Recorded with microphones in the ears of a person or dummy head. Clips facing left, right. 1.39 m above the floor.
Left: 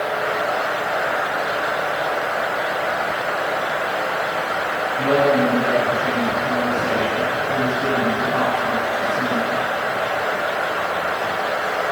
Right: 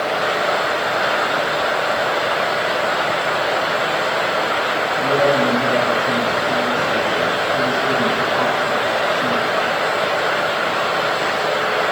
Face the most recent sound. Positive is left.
turn(degrees=50)  # may be behind; listen again after turning